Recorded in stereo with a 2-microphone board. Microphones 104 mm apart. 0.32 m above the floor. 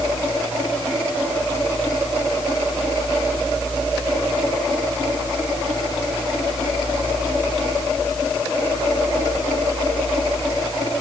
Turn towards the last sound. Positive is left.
No sound to turn to.